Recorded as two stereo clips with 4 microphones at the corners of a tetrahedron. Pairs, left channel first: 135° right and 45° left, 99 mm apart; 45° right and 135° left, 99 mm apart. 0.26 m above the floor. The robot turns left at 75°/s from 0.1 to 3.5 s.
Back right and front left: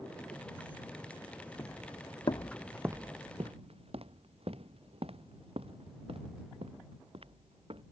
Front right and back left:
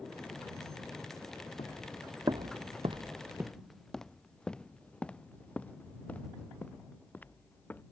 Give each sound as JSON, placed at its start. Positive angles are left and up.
{"t": 1.6, "sound": "footsteps", "azimuth_deg": -70}